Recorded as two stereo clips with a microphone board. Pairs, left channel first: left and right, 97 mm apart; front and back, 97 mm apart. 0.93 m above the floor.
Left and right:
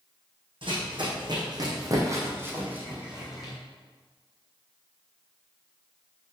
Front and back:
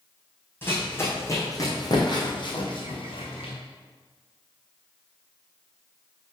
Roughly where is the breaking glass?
No breaking glass in this recording.